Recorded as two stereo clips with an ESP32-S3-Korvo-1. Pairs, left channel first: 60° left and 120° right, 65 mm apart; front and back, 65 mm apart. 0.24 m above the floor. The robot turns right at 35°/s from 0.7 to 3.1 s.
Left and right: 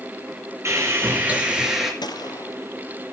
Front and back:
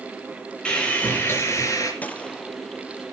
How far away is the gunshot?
About 1.2 m.